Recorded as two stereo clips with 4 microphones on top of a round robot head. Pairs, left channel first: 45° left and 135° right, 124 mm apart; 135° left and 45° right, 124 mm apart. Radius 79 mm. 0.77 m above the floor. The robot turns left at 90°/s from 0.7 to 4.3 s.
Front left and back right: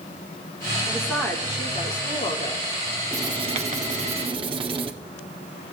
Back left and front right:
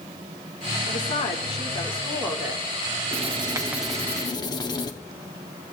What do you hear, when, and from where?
0.9 s a woman speaking: 155° left, 2.5 m; by 2.7 s 5° right, 2.5 m
3.1 s writing: 65° right, 1.6 m; by 4.9 s 175° right, 1.6 m